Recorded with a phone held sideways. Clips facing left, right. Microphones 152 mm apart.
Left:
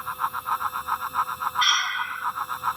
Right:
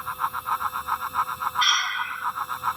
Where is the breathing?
5° right (ahead or behind).